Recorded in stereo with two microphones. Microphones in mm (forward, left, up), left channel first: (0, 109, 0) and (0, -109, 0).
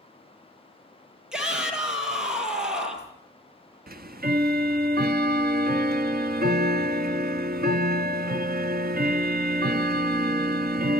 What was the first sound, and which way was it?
A shout, 5° right (ahead or behind).